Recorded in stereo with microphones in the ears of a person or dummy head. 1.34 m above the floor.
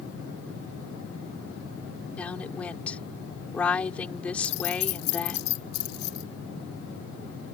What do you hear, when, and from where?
2.2 s a woman speaking: 15° left (ahead or behind)
4.4 s keys jangling: 85° left